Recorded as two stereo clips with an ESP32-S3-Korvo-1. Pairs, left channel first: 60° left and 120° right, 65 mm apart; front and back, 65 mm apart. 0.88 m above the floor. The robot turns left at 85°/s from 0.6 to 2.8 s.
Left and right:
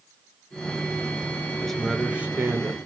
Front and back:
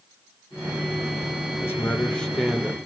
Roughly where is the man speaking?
Ahead.